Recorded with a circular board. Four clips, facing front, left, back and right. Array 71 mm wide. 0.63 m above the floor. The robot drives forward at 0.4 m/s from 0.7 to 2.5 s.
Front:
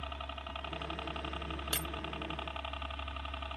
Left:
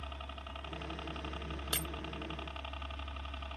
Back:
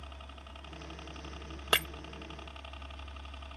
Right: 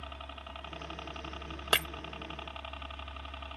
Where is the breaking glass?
135° right.